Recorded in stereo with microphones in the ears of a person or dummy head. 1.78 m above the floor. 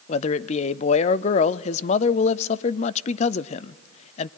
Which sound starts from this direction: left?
A man speaking, at 0.1 s.